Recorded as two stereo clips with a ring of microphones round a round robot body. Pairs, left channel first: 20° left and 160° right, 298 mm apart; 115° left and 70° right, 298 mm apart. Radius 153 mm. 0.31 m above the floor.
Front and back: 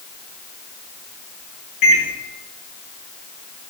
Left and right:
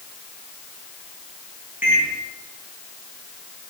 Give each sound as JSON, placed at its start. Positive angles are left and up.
{"t": 1.8, "sound": "a microwave", "azimuth_deg": 15, "distance_m": 3.0}